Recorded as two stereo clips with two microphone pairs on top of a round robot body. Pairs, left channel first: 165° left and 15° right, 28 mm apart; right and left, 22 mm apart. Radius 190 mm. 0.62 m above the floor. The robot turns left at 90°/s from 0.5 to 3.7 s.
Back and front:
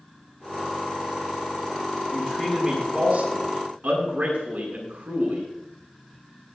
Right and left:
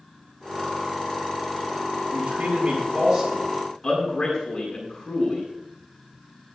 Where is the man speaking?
110° left, 9 m; by 5.5 s 30° right, 9 m.